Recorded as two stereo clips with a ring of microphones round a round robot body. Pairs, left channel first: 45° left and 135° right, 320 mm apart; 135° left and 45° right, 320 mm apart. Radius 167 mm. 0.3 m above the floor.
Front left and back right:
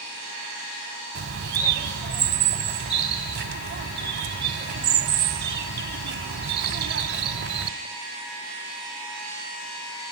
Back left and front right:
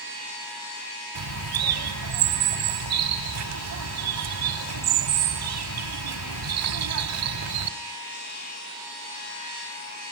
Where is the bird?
80° right, 1.7 m.